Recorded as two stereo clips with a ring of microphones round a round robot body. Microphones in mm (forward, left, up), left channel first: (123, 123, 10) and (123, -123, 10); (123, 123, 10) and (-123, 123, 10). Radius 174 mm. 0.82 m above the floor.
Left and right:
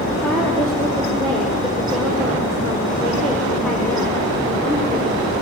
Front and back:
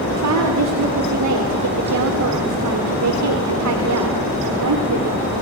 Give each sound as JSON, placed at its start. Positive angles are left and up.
{"t": 0.1, "sound": "a woman speaking", "azimuth_deg": 175, "distance_m": 2.5}